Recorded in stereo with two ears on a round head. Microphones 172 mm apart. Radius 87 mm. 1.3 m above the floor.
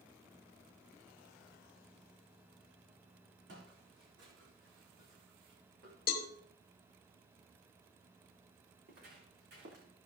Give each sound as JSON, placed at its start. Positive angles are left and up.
{"t": 3.5, "sound": "footsteps", "side_deg": -70, "distance_m": 4.5}
{"t": 6.1, "sound": "a cowbell", "side_deg": 50, "distance_m": 1.1}
{"t": 8.8, "sound": "footsteps", "side_deg": -55, "distance_m": 4.5}